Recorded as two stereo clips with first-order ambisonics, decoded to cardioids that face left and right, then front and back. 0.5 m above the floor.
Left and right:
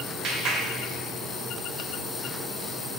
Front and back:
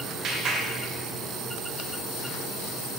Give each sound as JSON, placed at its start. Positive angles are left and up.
{"t": 0.2, "sound": "a clap", "azimuth_deg": -130, "distance_m": 1.4}